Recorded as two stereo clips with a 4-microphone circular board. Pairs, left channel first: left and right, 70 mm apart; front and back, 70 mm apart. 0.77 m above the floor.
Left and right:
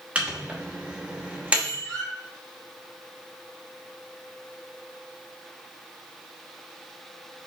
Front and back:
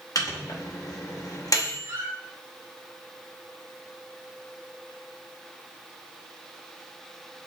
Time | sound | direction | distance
0.1 | a microwave | 20° right | 0.8 m
1.8 | a squeak | 170° left | 2 m